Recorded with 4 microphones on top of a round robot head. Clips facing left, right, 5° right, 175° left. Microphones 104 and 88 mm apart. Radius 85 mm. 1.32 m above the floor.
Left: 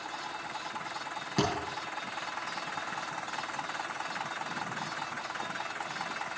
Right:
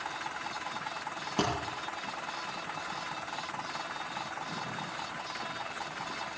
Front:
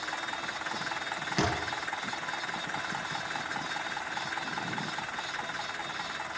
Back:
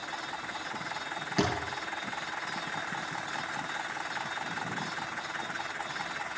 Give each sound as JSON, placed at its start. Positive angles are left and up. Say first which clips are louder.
{"t": 1.4, "sound": "a thud", "louder": "left 1 dB, back 1 dB", "azimuth_deg": 85, "distance_m": 7.5}